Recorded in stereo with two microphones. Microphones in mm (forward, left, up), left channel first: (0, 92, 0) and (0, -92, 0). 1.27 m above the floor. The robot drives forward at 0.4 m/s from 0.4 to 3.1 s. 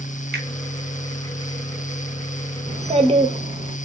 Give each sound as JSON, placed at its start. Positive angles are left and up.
{"t": 0.3, "sound": "a finger snap", "side_deg": -65, "distance_m": 0.9}
{"t": 2.7, "sound": "a child speaking", "side_deg": -40, "distance_m": 0.6}